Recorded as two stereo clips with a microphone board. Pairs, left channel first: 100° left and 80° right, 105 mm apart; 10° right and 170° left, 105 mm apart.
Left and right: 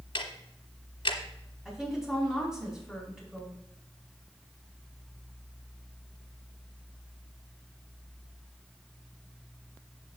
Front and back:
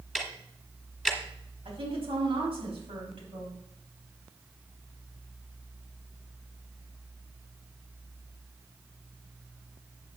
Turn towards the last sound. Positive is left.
turn(degrees=-165)